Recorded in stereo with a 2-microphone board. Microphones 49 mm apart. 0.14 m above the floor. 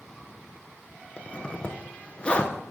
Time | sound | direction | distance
1.2 | a zipper | 25° left (ahead or behind) | 0.7 m